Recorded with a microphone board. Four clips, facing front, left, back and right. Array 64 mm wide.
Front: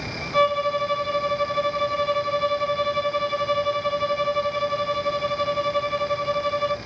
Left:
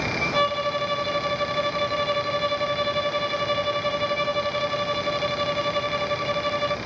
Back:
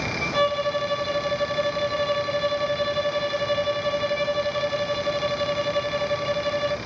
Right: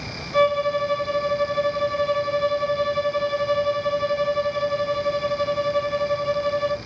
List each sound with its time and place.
0.3 s a violin: 120° left, 1.2 m